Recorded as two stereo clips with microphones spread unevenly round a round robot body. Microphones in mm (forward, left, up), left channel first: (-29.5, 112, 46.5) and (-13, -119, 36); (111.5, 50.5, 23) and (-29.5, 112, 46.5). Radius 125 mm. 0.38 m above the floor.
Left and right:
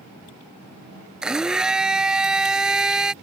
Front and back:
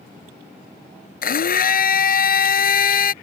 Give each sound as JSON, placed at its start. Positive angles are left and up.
{"t": 1.2, "sound": "a blender", "azimuth_deg": 0}